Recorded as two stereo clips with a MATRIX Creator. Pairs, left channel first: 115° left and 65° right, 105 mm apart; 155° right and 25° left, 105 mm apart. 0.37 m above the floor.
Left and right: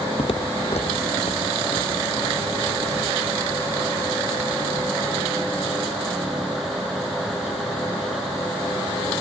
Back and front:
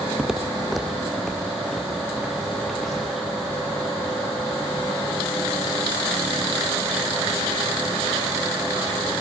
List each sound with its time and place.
0.2 s footsteps: 105° left, 0.6 m; by 3.2 s 115° left, 4 m